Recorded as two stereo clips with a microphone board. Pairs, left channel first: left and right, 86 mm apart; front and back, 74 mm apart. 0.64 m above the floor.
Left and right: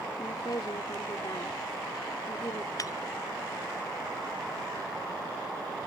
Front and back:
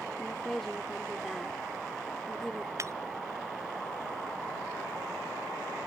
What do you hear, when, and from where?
0.2 s a woman speaking: 85° left
2.8 s breaking glass: 135° left